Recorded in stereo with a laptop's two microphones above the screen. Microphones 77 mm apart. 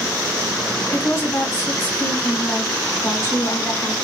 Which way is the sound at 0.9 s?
40° left (ahead or behind).